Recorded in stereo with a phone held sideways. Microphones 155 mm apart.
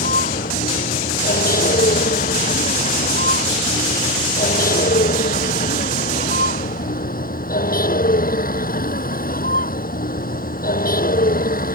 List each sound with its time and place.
0.0 s a vehicle: 70° left (ahead or behind)